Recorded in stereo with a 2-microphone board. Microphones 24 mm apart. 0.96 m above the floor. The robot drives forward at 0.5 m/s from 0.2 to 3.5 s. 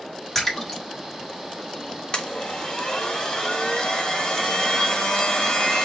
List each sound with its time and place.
0.3 s a splash: 10° left (ahead or behind), 1.7 m
2.1 s a blender: 40° left (ahead or behind), 1.3 m; by 5.8 s 30° left (ahead or behind), 1.8 m